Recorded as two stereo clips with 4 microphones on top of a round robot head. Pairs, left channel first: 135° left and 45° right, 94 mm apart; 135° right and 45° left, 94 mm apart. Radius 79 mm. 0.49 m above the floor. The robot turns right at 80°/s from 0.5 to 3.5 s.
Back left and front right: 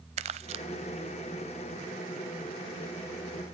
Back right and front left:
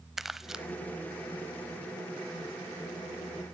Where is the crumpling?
40° right, 0.5 m; by 0.7 s 30° right, 0.5 m.